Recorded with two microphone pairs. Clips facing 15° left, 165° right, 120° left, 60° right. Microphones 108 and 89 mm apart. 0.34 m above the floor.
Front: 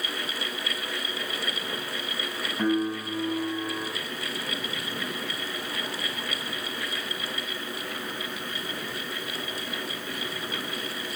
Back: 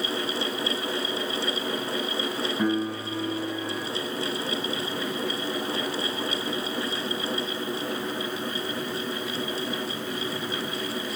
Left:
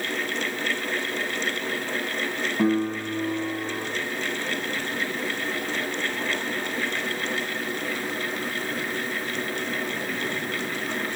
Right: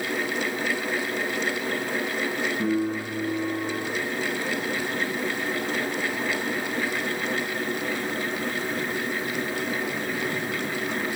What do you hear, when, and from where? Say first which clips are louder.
2.6 s a piano: front 2 dB, left 4 dB; 110° left, 1.1 m